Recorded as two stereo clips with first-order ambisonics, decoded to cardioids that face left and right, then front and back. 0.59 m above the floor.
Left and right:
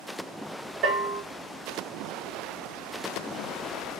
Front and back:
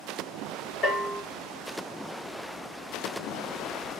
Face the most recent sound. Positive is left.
turn(degrees=-55)